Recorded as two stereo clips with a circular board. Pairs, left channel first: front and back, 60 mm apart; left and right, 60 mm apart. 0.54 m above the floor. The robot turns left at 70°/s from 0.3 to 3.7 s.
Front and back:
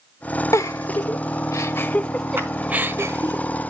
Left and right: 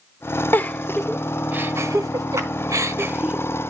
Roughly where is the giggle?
Ahead left.